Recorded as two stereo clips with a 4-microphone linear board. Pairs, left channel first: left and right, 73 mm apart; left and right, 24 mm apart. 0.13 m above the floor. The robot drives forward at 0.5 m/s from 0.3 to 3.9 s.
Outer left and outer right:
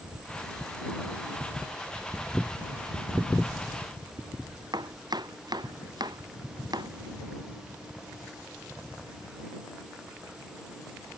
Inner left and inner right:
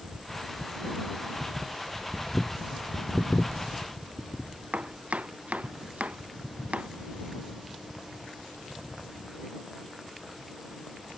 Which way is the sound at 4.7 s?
70° right (ahead or behind).